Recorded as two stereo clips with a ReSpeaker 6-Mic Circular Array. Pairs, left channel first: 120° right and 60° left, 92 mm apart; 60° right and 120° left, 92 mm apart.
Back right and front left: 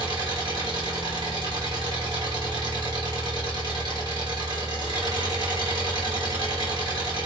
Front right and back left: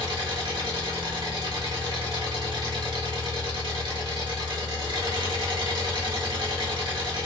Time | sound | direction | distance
0.0 | an engine running | 95° left | 1.8 m